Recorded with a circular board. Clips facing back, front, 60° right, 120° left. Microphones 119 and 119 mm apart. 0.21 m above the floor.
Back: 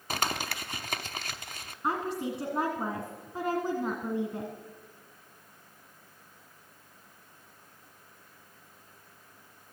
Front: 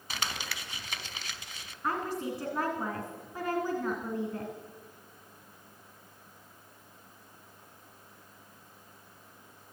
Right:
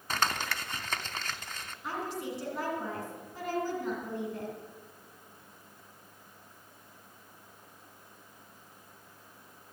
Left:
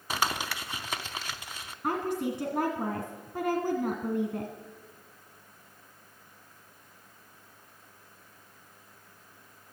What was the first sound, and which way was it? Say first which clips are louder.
Crumpling: back 6 dB, left 1 dB; 160° right.